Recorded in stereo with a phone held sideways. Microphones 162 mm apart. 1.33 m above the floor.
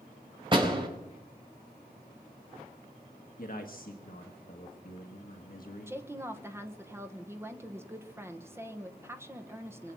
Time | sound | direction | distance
0.5 | a door slam | 30° right (ahead or behind) | 4 m
3.4 | a man speaking | 65° left (ahead or behind) | 1.4 m
5.9 | a woman speaking | 15° right (ahead or behind) | 1.4 m